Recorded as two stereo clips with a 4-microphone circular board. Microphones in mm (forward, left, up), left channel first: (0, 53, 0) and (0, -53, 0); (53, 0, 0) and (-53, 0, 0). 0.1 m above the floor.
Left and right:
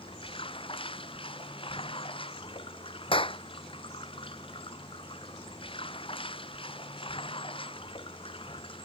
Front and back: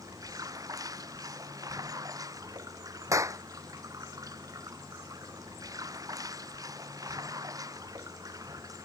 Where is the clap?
120° left.